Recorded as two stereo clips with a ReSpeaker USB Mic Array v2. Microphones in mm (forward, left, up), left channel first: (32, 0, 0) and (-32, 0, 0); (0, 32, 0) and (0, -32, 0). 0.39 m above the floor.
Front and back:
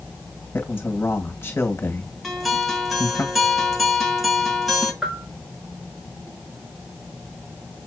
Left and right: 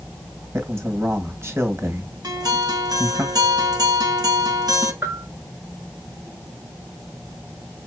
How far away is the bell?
About 1.2 m.